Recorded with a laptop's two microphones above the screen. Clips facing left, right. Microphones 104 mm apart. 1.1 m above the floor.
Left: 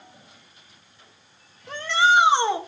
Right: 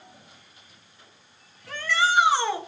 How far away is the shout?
About 1.4 m.